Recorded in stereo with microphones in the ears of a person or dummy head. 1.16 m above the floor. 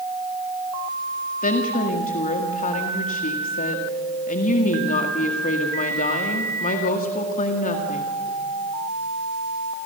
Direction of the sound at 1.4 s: 45° left (ahead or behind).